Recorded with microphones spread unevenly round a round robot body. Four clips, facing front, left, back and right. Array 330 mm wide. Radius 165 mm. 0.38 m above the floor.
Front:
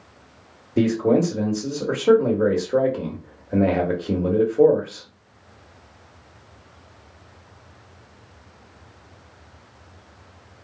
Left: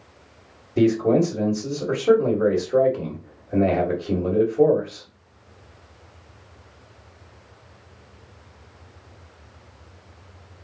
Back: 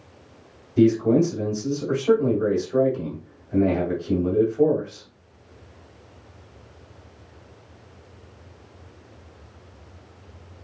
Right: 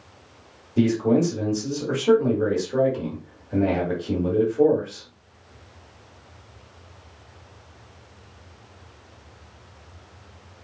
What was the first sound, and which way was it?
A man speaking, straight ahead.